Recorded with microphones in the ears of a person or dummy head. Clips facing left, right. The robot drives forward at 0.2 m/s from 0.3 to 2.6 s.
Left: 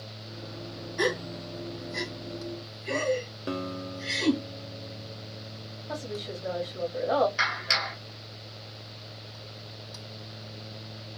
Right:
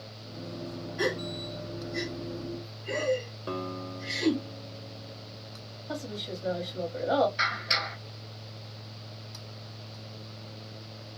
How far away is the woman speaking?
About 1.3 m.